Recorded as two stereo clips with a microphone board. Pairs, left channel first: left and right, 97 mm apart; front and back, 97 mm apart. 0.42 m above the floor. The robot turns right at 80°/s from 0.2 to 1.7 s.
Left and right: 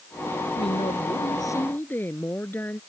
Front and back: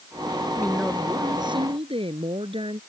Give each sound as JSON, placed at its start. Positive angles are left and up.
{"t": 0.6, "sound": "a woman speaking", "azimuth_deg": 70}